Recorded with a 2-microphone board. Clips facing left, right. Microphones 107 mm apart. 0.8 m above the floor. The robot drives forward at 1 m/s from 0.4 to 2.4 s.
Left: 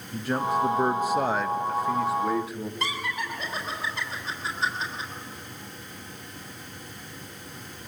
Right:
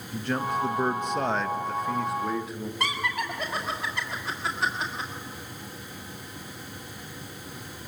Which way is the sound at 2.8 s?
65° right (ahead or behind).